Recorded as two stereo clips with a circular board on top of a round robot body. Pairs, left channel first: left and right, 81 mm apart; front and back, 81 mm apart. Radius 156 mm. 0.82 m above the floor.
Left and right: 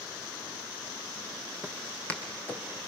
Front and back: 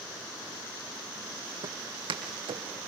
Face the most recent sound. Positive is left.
turn(degrees=160)